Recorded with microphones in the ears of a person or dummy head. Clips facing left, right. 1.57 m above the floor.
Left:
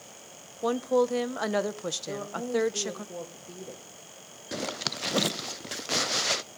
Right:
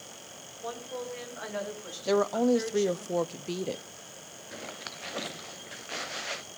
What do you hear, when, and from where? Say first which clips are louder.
0.6 s a woman speaking: left 13 dB; 75° left (ahead or behind), 1.0 m
2.0 s a woman speaking: right 14 dB; 85° right, 0.7 m
4.5 s a zipper: left 9 dB; 60° left (ahead or behind), 0.6 m